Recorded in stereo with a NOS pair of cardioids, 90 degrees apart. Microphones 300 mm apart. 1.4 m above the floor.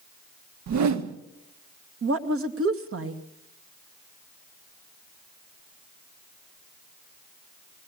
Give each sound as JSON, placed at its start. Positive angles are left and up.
{"t": 0.7, "sound": "a whoosh", "azimuth_deg": -65, "distance_m": 1.5}
{"t": 2.0, "sound": "a woman speaking", "azimuth_deg": -45, "distance_m": 2.0}